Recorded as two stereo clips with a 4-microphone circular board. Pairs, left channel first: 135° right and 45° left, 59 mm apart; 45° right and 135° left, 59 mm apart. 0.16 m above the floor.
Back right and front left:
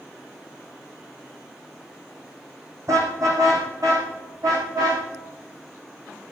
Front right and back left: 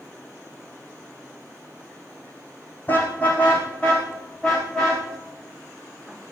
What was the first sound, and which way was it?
A car horn, 15° left.